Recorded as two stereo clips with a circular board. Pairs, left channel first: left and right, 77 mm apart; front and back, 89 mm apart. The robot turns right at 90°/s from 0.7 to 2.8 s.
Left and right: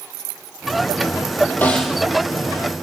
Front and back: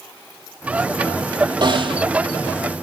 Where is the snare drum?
155° left, 3.5 m; by 2.0 s 165° right, 3.5 m.